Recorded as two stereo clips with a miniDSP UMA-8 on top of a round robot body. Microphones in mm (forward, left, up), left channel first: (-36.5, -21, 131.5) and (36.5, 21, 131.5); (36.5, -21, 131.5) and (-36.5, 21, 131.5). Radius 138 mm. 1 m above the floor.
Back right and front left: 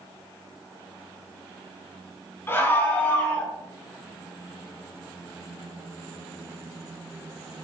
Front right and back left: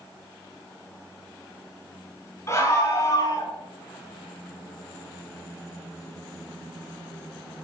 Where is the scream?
85° right, 6.5 m; by 3.5 s 75° right, 5.5 m.